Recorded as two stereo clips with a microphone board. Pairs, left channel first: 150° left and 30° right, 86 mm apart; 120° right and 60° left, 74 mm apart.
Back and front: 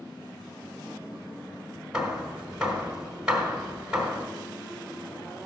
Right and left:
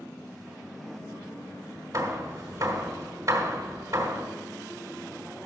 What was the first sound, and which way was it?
Hammering, 45° left.